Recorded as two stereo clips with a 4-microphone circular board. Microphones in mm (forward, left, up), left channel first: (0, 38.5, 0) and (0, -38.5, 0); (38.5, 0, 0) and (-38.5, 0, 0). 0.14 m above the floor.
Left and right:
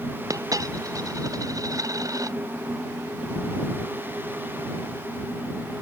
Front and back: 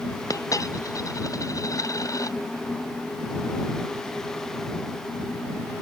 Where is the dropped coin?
45° right.